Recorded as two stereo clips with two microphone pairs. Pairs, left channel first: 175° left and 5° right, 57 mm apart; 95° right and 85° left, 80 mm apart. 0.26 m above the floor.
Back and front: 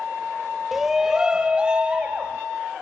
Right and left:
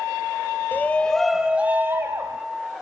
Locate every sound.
0.7 s a shout: 80° right, 1.3 m; by 2.4 s 60° left, 1.8 m